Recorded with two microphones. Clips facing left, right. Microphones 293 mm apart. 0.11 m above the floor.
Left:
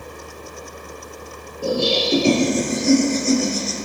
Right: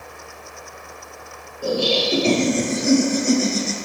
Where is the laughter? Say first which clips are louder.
Even; 25° left (ahead or behind), 2.5 m; by 3.8 s 35° right (ahead or behind), 1.8 m.